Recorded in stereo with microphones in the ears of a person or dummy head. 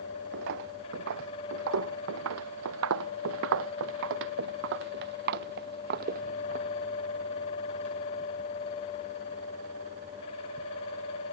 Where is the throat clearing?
No throat clearing in this recording.